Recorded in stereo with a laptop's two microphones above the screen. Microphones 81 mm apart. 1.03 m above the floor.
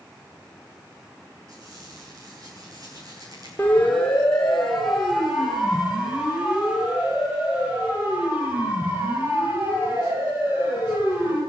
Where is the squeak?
50° right (ahead or behind), 8.5 m.